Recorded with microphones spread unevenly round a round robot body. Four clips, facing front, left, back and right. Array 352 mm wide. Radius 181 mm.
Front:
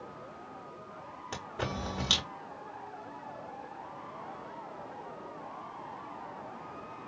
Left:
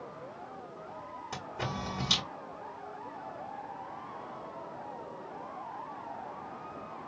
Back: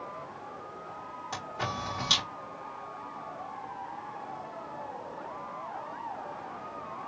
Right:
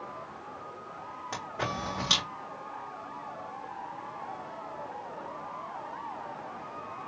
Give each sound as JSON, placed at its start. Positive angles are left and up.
{"t": 1.3, "sound": "a camera shutter", "azimuth_deg": -20, "distance_m": 1.6}